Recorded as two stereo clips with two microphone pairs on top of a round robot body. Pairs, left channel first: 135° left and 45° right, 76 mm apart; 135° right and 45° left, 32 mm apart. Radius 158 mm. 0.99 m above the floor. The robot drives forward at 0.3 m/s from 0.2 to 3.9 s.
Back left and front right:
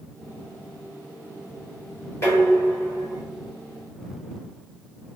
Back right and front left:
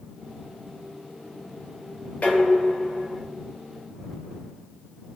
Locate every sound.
2.2 s dishes clattering: 175° right, 1.0 m